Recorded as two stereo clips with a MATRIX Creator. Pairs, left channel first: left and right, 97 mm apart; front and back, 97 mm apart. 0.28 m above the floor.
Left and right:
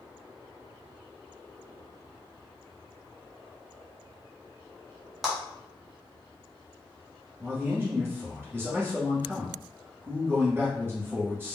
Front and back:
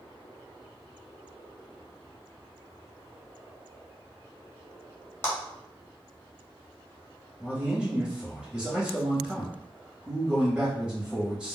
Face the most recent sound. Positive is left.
turn(degrees=-115)